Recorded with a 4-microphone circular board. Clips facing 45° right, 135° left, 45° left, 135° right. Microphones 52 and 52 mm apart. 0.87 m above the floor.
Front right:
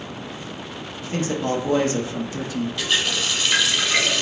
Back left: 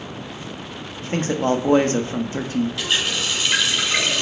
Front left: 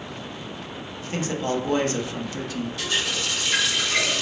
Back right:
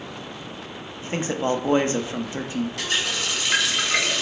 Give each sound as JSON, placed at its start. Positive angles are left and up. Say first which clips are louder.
{"t": 1.0, "sound": "a man speaking", "louder": "back left 3 dB, back right 2 dB", "azimuth_deg": 170, "distance_m": 0.6}
{"t": 2.8, "sound": "a running tap", "louder": "even, back right 1 dB", "azimuth_deg": -135, "distance_m": 2.0}